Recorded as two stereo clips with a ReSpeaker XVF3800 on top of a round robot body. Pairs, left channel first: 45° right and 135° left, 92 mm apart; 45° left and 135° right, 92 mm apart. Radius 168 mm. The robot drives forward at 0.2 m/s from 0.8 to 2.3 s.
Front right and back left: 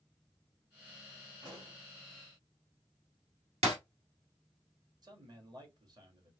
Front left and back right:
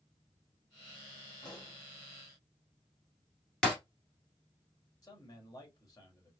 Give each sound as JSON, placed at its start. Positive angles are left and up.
{"t": 1.4, "sound": "a pop", "azimuth_deg": 90, "distance_m": 1.8}
{"t": 3.6, "sound": "breaking glass", "azimuth_deg": 125, "distance_m": 1.6}
{"t": 5.0, "sound": "a man speaking", "azimuth_deg": 95, "distance_m": 2.0}